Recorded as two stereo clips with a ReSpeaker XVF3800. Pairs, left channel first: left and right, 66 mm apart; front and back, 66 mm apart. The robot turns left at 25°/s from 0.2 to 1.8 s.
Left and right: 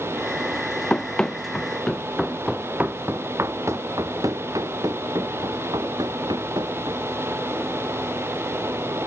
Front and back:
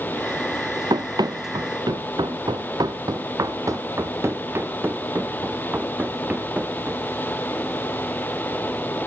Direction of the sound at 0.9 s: 170° left.